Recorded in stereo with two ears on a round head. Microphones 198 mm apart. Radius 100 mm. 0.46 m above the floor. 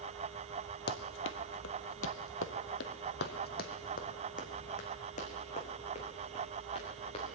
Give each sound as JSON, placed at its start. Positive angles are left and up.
{"t": 0.9, "sound": "running footsteps", "side_deg": 55, "distance_m": 0.9}